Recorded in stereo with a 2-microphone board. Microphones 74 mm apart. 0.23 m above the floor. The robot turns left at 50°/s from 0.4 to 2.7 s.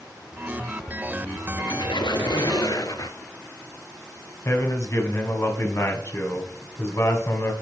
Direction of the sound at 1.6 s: 115° left.